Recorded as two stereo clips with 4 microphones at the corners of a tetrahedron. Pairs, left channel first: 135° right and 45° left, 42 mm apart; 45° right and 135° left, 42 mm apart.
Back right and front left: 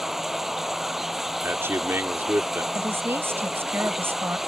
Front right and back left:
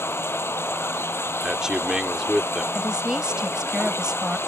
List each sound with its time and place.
0.0 s running water: 40° right
1.4 s a man speaking: 60° left
2.8 s a woman speaking: 65° left